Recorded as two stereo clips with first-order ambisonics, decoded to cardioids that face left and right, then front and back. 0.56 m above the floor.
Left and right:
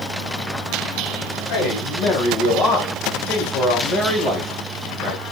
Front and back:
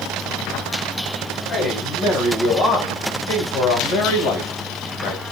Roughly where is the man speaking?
Left.